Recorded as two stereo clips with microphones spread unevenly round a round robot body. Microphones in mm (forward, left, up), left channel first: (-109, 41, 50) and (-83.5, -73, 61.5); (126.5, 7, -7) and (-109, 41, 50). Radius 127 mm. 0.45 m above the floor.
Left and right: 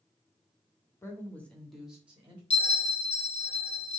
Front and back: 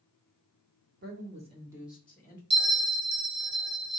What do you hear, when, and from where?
1.0 s a woman speaking: 135° left, 1.4 m; by 2.4 s 15° right, 1.4 m
2.5 s a bell: 120° left, 1.8 m